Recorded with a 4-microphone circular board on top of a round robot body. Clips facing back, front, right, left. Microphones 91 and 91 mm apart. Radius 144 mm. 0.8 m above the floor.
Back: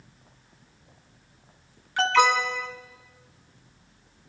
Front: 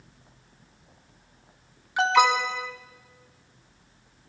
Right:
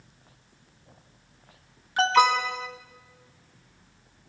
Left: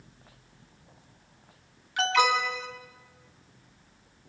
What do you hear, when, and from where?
2.0 s an alarm: 65° right, 1.7 m